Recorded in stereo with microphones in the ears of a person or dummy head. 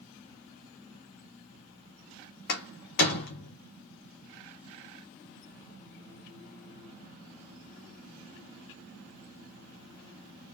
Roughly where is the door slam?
Left.